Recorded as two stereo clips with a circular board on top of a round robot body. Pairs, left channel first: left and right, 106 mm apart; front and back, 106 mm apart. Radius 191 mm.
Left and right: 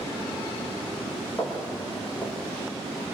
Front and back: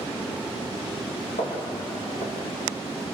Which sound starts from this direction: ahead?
Footsteps, at 1.4 s.